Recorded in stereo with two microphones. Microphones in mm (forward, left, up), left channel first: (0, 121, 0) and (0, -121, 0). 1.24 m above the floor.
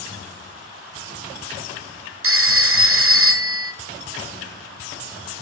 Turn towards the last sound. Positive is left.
turn(degrees=-55)  # may be behind; listen again after turning